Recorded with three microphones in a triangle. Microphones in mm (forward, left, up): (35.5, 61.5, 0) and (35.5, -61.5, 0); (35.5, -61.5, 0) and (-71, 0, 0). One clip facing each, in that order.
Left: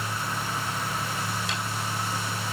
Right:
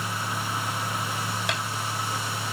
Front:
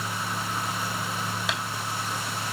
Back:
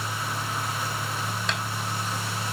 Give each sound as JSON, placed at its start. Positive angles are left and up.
{"t": 1.5, "sound": "tapping", "azimuth_deg": -115, "distance_m": 2.0}